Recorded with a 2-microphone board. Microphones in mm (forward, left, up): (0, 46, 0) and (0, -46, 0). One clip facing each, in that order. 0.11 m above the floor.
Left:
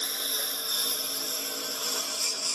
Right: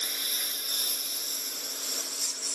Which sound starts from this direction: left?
A lawn mower, at 0.0 s.